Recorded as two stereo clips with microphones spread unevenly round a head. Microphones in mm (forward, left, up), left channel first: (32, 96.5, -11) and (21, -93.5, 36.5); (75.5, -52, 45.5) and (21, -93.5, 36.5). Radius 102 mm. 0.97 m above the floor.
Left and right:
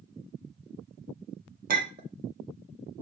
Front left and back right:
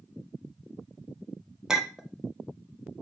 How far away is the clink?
About 0.8 m.